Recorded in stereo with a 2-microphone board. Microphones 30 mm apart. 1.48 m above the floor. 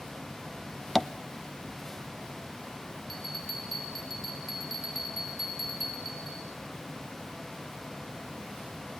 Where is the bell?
Centre (ahead or behind), 6.5 m.